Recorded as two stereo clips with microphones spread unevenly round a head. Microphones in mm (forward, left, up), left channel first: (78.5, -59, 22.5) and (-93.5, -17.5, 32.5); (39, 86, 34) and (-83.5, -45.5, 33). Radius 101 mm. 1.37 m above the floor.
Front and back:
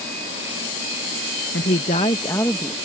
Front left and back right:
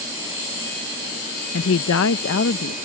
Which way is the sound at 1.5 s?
25° left.